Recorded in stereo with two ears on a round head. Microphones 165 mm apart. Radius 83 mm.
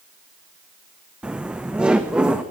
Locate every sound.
1.2 s laughter: 5° right (ahead or behind), 0.9 m